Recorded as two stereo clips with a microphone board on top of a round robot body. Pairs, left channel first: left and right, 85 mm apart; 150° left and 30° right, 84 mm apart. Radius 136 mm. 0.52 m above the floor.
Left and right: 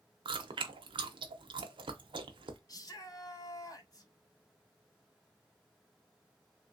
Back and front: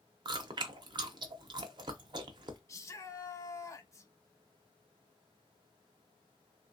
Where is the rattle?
I don't hear a rattle.